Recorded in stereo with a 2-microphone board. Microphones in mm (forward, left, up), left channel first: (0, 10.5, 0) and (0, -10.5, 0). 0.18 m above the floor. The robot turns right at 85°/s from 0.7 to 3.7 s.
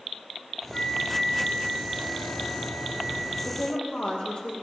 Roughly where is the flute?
Ahead left.